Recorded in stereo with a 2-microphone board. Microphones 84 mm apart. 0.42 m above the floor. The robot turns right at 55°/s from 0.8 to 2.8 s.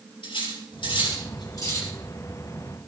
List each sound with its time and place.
0.2 s cutlery clinking: 85° left, 5 m; by 1.9 s 25° left (ahead or behind), 5 m